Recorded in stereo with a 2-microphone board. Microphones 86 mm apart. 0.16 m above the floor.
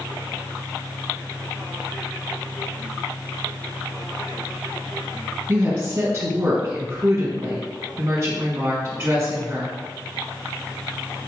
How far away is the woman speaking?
About 1.4 m.